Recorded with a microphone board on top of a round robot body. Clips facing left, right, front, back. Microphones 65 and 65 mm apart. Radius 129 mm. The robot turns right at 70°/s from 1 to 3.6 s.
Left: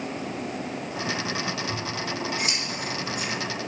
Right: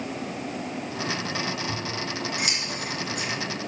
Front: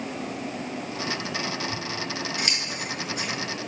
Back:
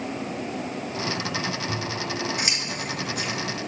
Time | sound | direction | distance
1.7 | scissors | 165° right | 2.5 m